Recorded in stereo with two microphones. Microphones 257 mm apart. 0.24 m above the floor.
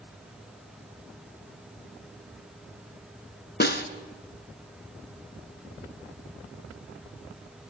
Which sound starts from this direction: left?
A snare drum, at 3.6 s.